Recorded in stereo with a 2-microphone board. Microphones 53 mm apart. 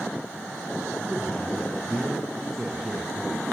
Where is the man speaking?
5° left (ahead or behind), 7.5 m.